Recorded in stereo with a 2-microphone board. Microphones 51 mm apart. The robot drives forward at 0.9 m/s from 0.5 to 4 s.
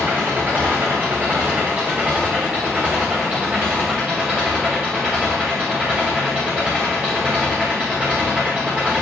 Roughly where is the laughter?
No laughter in this recording.